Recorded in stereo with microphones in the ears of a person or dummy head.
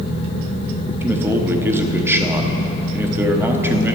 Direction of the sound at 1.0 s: 15° right (ahead or behind).